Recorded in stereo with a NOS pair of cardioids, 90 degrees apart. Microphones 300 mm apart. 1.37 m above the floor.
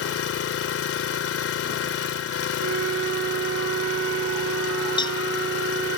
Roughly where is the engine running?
Ahead left.